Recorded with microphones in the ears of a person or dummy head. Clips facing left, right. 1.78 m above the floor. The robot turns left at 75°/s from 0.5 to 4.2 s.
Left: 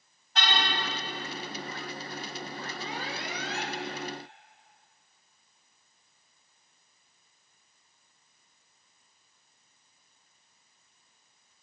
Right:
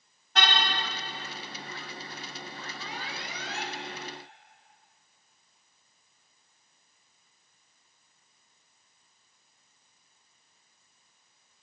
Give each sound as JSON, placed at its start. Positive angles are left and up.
{"t": 0.3, "sound": "a car horn", "side_deg": -60, "distance_m": 4.5}
{"t": 2.8, "sound": "an alarm", "azimuth_deg": 170, "distance_m": 4.5}